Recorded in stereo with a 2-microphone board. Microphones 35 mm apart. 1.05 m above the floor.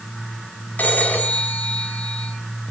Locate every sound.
0.8 s a phone ringing: 60° left (ahead or behind), 5 m